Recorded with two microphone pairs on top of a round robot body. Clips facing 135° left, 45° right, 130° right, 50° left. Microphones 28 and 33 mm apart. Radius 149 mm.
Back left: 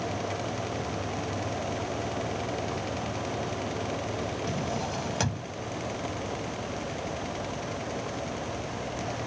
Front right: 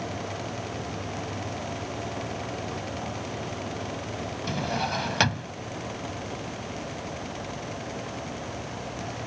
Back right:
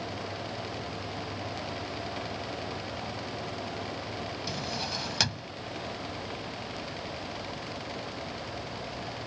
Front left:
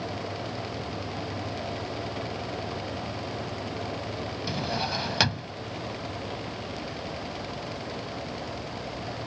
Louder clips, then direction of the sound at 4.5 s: Front right 3 dB, front left 7 dB; 15° right.